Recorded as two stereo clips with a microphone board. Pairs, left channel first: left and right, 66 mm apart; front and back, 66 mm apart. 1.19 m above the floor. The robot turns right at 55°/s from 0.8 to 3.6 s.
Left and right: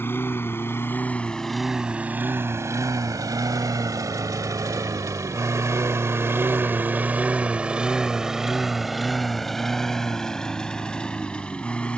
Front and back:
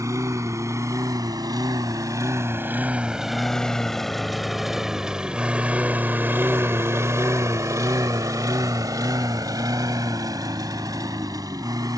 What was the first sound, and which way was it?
A lawn mower, 145° left.